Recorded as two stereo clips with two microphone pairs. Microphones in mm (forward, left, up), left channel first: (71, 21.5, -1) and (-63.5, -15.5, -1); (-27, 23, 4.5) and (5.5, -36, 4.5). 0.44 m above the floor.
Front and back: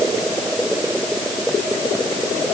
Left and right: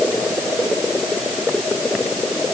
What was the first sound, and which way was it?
Only background noise.